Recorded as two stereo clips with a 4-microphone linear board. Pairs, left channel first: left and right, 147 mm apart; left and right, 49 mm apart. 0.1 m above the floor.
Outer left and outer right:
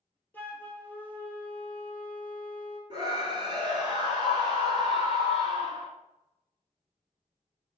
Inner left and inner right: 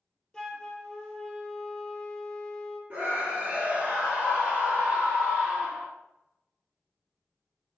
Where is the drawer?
I don't hear a drawer.